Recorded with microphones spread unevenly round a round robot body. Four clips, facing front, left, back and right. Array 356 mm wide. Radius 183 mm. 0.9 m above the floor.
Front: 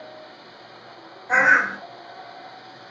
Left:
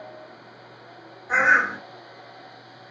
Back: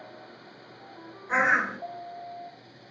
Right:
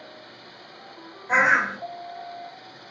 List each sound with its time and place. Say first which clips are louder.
1.3 s a bird: left 1 dB, front 6 dB; 35° right, 1.5 m